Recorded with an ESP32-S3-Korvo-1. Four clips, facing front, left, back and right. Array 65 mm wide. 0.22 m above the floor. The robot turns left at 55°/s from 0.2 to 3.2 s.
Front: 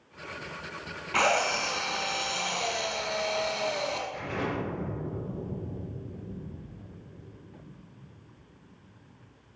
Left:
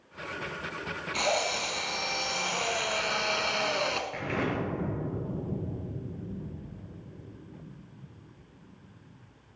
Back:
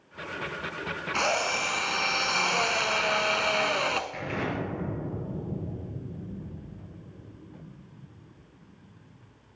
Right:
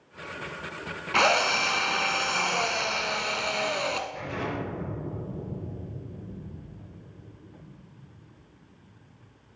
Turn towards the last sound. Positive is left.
turn(degrees=125)